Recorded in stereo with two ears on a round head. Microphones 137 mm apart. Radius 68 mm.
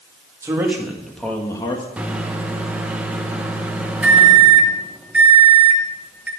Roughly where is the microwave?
Centre.